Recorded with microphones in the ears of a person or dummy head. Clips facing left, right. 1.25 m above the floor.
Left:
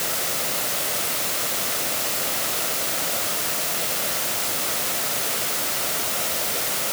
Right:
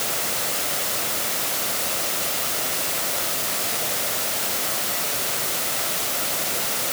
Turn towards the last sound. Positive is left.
No sound to turn to.